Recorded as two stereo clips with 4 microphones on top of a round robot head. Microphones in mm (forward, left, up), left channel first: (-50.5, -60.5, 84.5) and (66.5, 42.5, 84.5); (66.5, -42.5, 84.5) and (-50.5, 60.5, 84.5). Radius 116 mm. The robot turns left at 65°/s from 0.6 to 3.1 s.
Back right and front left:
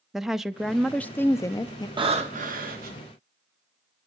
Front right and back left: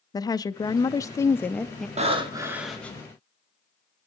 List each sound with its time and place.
0.1 s a woman speaking: 45° right, 0.5 m; by 1.9 s 125° right, 0.5 m
2.0 s breathing: 95° left, 1.9 m; by 3.0 s 30° left, 1.9 m